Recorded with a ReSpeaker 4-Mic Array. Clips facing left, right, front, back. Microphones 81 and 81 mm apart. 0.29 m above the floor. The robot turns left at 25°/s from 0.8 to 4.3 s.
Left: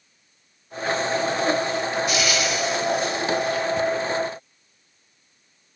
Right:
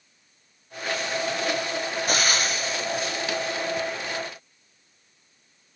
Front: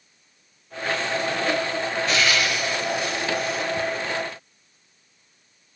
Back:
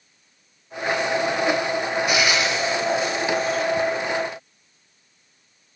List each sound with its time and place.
2.1 s frying: 110° right, 0.6 m; by 3.6 s 150° right, 0.6 m